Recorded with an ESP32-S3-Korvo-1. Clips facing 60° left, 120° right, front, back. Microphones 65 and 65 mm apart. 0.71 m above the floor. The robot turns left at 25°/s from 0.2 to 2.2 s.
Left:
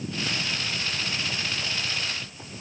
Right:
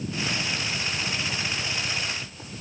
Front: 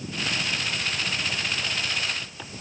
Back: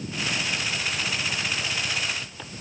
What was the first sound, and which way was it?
Only background noise.